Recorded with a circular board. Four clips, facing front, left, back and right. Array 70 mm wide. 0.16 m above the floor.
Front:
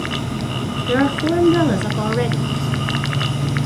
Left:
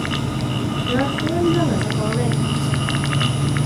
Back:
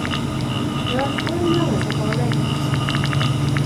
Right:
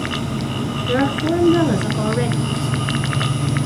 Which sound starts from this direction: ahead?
A woman speaking, at 0.9 s.